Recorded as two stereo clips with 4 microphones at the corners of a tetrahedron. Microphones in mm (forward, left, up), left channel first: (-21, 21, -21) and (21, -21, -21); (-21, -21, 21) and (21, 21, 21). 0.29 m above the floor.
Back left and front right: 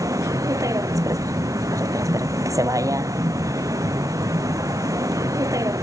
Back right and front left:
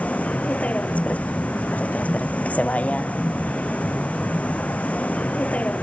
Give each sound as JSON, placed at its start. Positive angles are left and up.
{"t": 0.0, "sound": "a vehicle", "azimuth_deg": -70}